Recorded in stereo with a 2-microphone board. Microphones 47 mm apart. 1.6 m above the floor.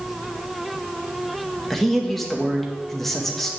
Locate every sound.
1.7 s a man speaking: 5° left (ahead or behind), 2.0 m